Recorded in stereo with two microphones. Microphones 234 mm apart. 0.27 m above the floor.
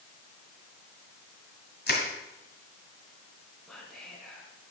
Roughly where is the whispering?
Centre.